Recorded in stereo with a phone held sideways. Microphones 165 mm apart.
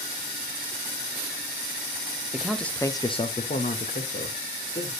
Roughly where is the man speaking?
Centre.